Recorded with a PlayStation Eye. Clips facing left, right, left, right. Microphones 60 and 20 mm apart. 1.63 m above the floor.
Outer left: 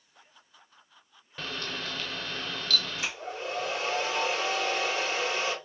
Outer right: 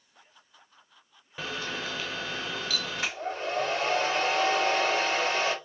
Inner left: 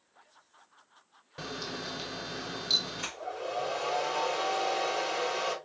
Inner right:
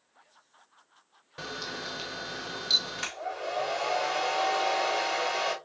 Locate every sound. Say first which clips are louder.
1.4 s a camera shutter: outer right 2 dB, inner right 1 dB; 10° right (ahead or behind), 0.7 m
3.0 s a hair dryer: outer right 3 dB, inner right 2 dB; 45° right (ahead or behind), 3 m